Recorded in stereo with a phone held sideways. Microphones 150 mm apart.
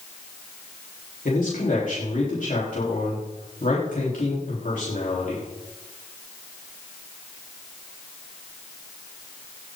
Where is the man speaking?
60° left (ahead or behind), 4 m.